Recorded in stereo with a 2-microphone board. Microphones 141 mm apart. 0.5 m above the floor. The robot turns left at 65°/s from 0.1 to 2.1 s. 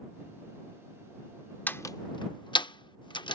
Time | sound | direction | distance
1.7 | a door slam | 10° left (ahead or behind) | ?